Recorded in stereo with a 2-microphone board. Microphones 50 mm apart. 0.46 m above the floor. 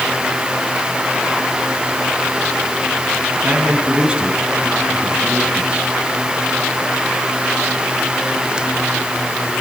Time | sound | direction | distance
3.4 | a man speaking | 25° right (ahead or behind) | 4.5 m